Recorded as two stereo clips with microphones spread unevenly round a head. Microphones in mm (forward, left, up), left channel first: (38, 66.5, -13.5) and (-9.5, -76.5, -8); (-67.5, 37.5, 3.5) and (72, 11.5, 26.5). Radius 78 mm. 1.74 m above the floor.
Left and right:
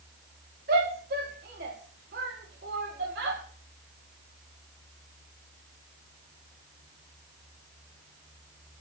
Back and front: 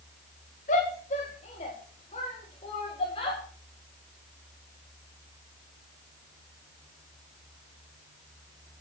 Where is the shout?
145° right, 4 m; by 3.4 s 130° right, 5 m.